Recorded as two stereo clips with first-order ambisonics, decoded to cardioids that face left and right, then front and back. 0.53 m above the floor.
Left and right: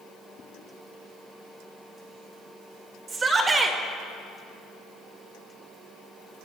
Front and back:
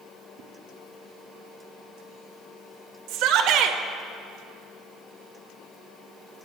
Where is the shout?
160° right, 1.3 m.